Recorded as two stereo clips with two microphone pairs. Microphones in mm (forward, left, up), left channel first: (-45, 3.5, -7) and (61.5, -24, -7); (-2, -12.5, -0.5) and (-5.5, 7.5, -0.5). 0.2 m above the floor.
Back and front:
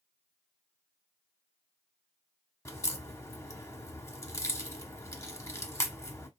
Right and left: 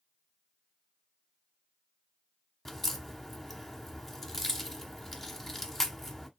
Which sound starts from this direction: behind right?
A crack, at 2.6 s.